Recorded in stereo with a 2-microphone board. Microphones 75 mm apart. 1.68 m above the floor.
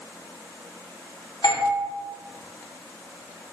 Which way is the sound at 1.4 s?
70° left (ahead or behind).